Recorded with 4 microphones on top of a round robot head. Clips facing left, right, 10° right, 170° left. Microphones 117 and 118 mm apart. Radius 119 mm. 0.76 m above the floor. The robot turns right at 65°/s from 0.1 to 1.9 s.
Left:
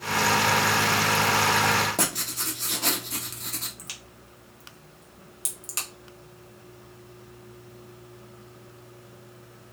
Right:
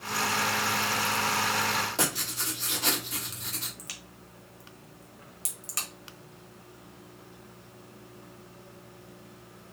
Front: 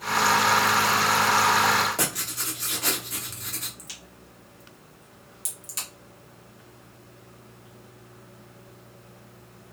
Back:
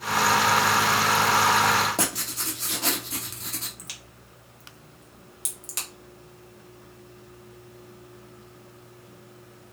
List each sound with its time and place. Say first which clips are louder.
2.0 s writing: left 2 dB, back 1 dB; 120° left, 1.3 m
3.8 s a crack: left 1 dB, front 1 dB; 155° left, 1.4 m